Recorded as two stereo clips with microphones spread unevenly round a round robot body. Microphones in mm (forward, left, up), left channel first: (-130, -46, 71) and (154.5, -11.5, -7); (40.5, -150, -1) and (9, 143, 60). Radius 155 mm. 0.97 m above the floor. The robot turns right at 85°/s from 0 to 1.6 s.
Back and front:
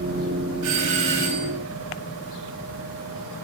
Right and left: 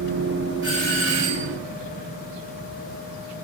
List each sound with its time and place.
0.6 s a doorbell: 15° left, 6.5 m; by 1.6 s 95° left, 6.5 m